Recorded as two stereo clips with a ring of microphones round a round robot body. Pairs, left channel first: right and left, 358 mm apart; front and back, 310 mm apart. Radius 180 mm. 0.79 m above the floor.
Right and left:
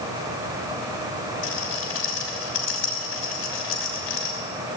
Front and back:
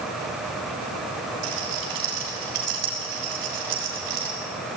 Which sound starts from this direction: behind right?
A rattle, at 1.4 s.